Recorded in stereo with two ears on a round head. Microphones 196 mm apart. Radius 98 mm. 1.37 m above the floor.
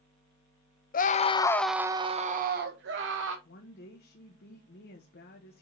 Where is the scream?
40° left (ahead or behind), 0.7 m; by 3.4 s 60° right (ahead or behind), 1.2 m.